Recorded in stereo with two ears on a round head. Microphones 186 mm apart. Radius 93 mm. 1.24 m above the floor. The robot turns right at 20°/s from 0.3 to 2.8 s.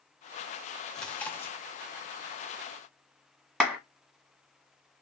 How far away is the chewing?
About 0.5 m.